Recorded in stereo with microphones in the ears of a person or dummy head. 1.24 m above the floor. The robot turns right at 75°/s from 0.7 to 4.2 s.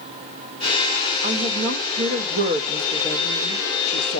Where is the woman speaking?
130° right, 1.5 m; by 4.2 s 90° left, 1.5 m.